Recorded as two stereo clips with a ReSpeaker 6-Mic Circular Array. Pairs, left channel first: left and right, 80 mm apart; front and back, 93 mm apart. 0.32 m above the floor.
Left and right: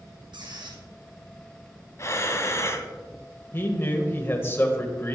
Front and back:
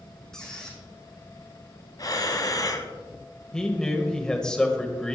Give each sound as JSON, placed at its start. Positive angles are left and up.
{"t": 0.3, "sound": "a squeak", "azimuth_deg": -85, "distance_m": 2.5}
{"t": 2.0, "sound": "breathing", "azimuth_deg": 40, "distance_m": 0.9}
{"t": 3.5, "sound": "a man speaking", "azimuth_deg": 75, "distance_m": 1.5}